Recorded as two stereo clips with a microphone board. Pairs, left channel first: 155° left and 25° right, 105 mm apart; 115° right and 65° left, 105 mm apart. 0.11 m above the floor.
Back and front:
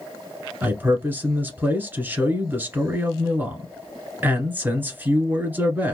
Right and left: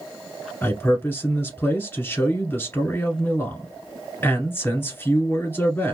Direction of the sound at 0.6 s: 70° right.